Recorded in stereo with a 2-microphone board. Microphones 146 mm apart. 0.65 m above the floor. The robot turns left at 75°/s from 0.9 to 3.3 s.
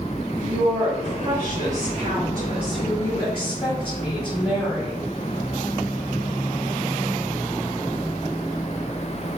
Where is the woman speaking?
40° right, 1.0 m; by 5.0 s 140° left, 1.0 m.